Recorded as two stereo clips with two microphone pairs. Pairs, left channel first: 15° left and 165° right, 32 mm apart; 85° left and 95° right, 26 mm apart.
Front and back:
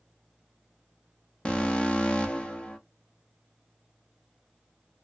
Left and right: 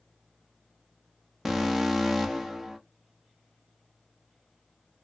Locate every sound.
1.4 s an alarm: 10° right, 0.7 m